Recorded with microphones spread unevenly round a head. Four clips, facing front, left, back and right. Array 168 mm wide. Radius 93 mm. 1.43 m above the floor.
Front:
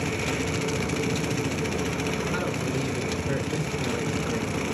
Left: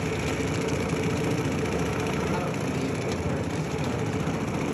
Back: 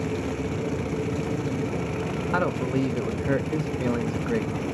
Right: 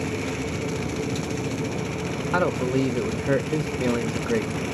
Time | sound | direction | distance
2.3 | a man speaking | 105° right | 0.8 m